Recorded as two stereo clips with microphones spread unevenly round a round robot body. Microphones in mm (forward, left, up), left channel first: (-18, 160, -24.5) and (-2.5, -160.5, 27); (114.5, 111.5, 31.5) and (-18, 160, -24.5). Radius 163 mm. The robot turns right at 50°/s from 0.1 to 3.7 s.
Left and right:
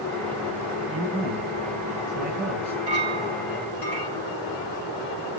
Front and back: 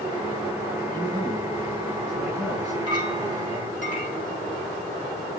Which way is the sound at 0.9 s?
145° right.